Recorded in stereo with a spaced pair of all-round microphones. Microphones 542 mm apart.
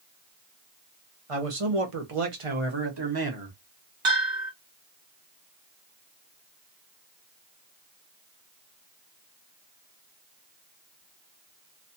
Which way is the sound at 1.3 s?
75° right (ahead or behind).